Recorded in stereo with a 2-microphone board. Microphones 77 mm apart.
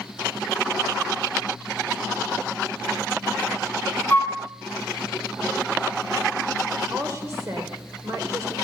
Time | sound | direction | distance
4.1 | a flute | 20° left (ahead or behind) | 1.7 m
6.9 | a woman speaking | 40° right (ahead or behind) | 1.3 m